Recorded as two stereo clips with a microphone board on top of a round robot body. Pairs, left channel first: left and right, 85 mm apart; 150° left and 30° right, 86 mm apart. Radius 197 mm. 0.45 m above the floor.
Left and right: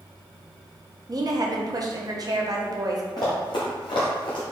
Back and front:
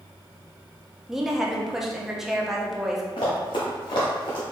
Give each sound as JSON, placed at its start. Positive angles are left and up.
{"t": 1.1, "sound": "a woman speaking", "azimuth_deg": -115, "distance_m": 0.9}
{"t": 3.2, "sound": "running footsteps", "azimuth_deg": 130, "distance_m": 0.6}